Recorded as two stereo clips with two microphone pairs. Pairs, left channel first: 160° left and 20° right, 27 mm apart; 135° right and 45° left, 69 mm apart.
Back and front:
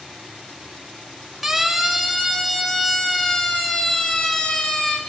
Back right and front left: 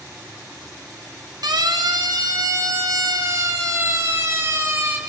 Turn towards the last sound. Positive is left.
turn(degrees=105)